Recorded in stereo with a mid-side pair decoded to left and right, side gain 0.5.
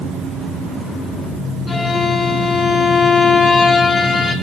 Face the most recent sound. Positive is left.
turn(degrees=30)